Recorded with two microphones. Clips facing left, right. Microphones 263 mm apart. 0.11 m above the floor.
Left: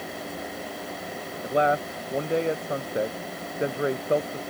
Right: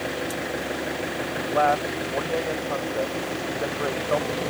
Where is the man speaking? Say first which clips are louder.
Even; 20° left (ahead or behind).